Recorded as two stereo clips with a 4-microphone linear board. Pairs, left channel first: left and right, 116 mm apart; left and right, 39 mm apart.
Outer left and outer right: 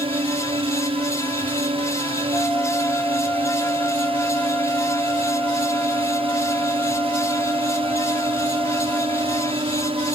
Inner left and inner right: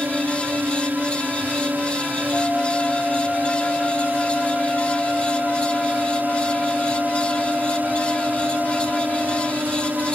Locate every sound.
0.0 s a drone: 55° right (ahead or behind)
2.3 s a flute: 15° left (ahead or behind)